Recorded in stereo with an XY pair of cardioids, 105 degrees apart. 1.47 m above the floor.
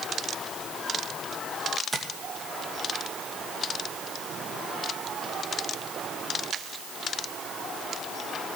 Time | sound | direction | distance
1.9 | tapping | 15° right | 2 m